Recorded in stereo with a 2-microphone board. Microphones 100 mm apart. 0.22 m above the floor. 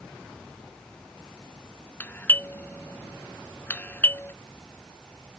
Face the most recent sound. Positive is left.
turn(degrees=20)  # may be behind; listen again after turning